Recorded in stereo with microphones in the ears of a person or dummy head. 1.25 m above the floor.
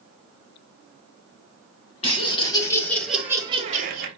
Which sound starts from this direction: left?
Laughter, at 2.0 s.